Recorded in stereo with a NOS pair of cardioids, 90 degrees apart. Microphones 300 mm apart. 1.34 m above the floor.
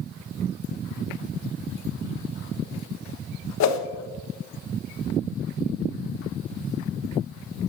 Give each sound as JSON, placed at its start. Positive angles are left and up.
{"t": 3.6, "sound": "a whoosh", "azimuth_deg": 60, "distance_m": 1.4}